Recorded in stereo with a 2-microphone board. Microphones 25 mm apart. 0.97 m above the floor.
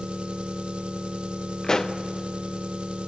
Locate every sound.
0.0 s an engine running: 45° right (ahead or behind), 1.1 m
1.6 s a pop: 25° left (ahead or behind), 0.7 m